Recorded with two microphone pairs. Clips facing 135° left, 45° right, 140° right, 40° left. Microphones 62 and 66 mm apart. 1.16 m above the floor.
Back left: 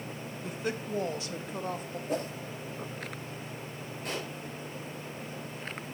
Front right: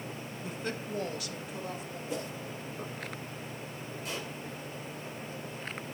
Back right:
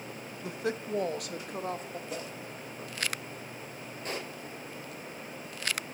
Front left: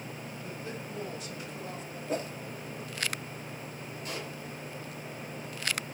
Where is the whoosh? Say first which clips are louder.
Back left 5 dB, front left 8 dB; 90° left, 1.5 m.